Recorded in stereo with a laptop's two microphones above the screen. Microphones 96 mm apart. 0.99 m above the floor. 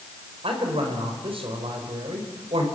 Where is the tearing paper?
No tearing paper in this recording.